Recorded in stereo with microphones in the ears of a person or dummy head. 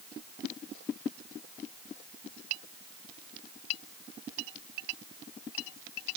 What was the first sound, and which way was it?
Only background noise.